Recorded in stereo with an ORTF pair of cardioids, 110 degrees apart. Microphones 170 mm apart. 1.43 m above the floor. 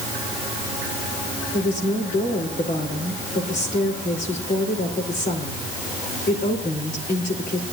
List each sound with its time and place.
1.5 s a woman speaking: 50° left, 4.5 m